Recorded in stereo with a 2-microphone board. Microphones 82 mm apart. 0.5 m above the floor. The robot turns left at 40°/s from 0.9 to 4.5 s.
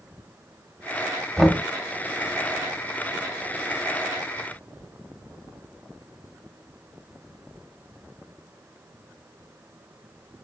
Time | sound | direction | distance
1.4 | knocking | centre (ahead or behind) | 0.7 m